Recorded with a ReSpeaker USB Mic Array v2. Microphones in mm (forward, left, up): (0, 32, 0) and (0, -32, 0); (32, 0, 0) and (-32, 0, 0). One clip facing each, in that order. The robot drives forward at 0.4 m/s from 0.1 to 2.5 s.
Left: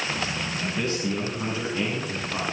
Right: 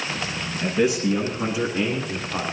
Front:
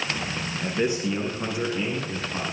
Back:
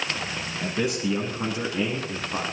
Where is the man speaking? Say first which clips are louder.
Right 8 dB, front 1 dB; 170° right, 9.5 m.